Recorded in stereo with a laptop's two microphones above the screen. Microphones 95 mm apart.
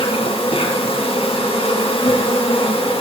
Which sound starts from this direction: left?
An insect, at 0.0 s.